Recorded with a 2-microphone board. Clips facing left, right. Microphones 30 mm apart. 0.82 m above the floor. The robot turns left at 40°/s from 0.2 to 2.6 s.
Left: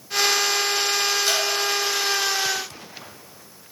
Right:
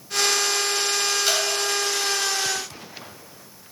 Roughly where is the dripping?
Centre.